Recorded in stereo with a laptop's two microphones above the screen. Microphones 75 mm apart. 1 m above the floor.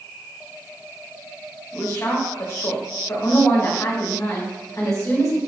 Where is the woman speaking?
45° left (ahead or behind), 1.4 m.